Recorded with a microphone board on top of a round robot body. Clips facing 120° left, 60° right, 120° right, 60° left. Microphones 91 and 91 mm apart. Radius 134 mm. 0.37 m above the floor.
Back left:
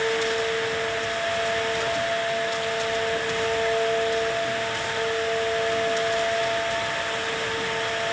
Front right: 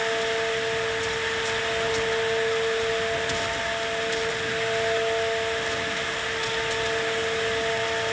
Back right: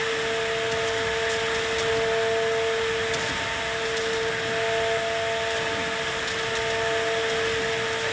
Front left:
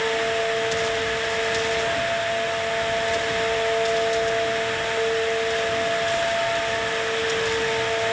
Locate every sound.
Only background noise.